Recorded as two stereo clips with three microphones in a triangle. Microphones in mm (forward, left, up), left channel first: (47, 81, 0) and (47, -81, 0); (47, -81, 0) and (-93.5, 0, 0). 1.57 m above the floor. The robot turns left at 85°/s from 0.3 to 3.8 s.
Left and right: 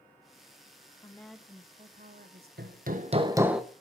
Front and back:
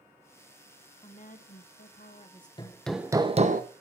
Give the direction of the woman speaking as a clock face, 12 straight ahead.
11 o'clock.